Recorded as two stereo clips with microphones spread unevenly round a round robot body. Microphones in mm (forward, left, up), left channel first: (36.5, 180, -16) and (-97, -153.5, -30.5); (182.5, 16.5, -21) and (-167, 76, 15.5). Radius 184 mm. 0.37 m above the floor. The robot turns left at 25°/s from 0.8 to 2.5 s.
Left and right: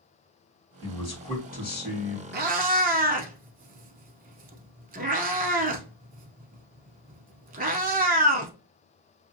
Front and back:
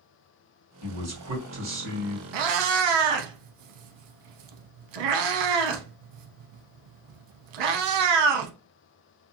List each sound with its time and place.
0.8 s a man speaking: 145° left, 1.5 m; by 2.2 s 110° left, 1.5 m
2.3 s a cat meowing: 175° right, 0.6 m; by 8.5 s straight behind, 0.6 m